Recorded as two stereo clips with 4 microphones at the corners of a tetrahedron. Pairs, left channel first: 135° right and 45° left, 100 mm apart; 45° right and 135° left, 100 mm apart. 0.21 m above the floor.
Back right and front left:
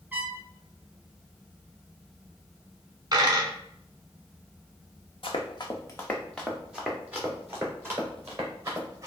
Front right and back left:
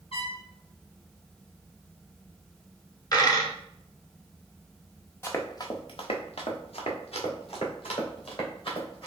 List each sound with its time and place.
0.1 s a trumpet: 30° right, 0.9 m
3.1 s a dropped coin: straight ahead, 0.8 m
5.2 s running footsteps: 110° right, 1.0 m; by 9.1 s 15° right, 3.5 m